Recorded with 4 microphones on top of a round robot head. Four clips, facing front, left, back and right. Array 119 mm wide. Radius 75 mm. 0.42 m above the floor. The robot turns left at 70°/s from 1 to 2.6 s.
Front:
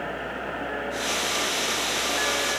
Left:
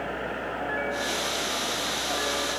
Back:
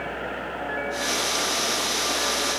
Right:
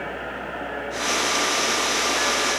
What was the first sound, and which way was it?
Only background noise.